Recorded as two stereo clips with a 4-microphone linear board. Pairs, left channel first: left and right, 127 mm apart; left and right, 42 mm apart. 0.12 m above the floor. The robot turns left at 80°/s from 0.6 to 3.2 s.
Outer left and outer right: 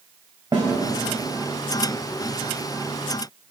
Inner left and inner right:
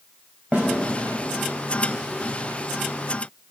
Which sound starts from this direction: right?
A snare drum, at 0.5 s.